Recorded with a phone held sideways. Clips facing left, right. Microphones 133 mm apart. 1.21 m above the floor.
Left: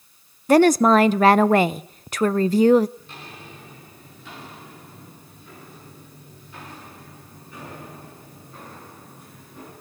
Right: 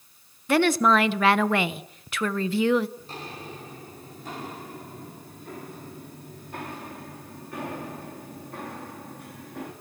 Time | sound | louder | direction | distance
0.5 | a woman speaking | left 6 dB | 40° left (ahead or behind) | 0.8 m
3.0 | footsteps | right 3 dB | 35° right (ahead or behind) | 6 m